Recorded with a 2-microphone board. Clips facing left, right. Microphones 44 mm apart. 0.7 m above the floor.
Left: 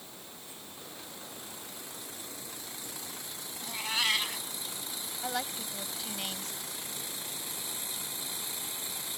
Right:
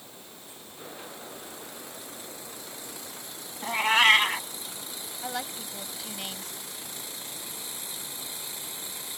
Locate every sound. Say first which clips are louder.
3.6 s a cat meowing: right 11 dB; 50° right (ahead or behind)
5.2 s a woman speaking: right 1 dB; 5° right (ahead or behind)